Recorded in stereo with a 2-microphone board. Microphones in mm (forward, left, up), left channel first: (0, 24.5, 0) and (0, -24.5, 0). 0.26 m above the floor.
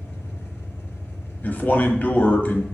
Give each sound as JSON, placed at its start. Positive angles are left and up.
{"t": 0.0, "sound": "an engine running", "side_deg": 65, "distance_m": 2.5}
{"t": 1.4, "sound": "a man speaking", "side_deg": 40, "distance_m": 1.1}